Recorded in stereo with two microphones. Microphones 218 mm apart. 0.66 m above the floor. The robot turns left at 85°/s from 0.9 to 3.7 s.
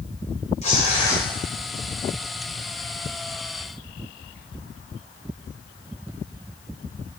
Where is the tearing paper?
30° left (ahead or behind), 2.5 m; by 1.2 s centre (ahead or behind), 2.5 m.